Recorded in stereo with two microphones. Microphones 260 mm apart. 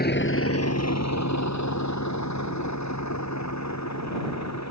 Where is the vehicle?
35° left (ahead or behind); by 4.7 s 75° left (ahead or behind).